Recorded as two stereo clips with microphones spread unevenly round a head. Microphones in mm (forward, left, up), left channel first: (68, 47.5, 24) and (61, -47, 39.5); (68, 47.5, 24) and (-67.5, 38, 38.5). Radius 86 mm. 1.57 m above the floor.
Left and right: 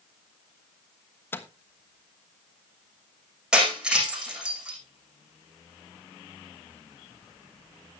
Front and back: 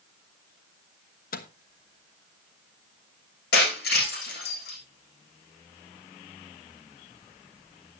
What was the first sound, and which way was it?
A microwave, 15° left.